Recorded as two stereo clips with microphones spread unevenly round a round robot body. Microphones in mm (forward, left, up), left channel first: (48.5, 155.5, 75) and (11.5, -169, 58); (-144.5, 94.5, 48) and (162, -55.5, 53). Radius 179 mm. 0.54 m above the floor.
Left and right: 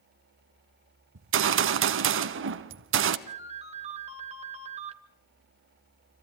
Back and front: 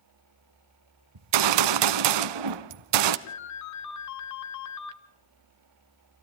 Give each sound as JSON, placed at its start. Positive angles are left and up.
{"t": 1.1, "sound": "a gunshot", "azimuth_deg": -45, "distance_m": 1.0}
{"t": 3.3, "sound": "a ringtone", "azimuth_deg": -165, "distance_m": 1.6}